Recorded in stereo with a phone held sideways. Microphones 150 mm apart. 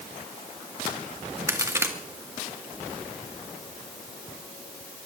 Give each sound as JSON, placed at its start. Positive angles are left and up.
{"t": 1.5, "sound": "a crack", "side_deg": -15, "distance_m": 1.7}